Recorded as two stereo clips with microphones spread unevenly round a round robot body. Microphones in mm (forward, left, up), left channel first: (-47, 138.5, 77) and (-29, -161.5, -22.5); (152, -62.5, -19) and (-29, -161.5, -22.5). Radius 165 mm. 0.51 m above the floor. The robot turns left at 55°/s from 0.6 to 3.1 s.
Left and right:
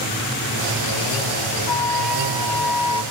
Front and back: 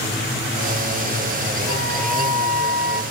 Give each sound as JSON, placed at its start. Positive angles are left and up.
{"t": 1.7, "sound": "a flute", "azimuth_deg": 65, "distance_m": 1.9}